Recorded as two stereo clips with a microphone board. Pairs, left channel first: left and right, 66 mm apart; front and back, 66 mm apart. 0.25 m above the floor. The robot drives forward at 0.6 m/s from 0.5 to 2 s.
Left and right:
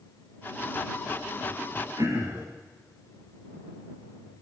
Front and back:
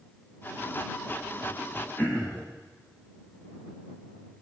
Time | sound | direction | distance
2.0 | throat clearing | 70° right | 6.5 m